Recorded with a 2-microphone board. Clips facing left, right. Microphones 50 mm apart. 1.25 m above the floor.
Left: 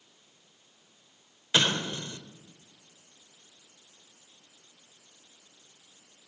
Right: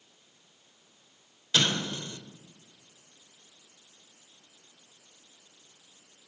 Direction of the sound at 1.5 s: 25° left (ahead or behind).